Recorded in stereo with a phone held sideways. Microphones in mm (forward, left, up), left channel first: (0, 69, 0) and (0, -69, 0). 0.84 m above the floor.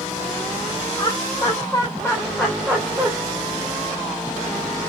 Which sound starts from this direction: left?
Laughter, at 1.0 s.